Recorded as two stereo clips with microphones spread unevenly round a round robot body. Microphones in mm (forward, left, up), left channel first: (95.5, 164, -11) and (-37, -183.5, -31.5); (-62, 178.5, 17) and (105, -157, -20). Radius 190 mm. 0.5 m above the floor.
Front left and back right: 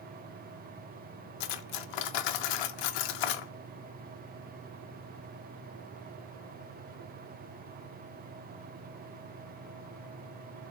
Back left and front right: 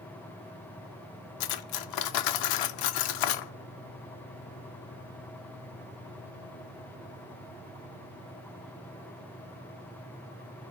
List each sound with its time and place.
1.4 s cutlery clinking: 85° left, 0.5 m